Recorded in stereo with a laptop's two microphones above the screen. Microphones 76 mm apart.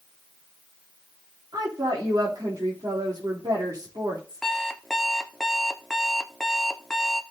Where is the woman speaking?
60° right (ahead or behind), 2.5 m.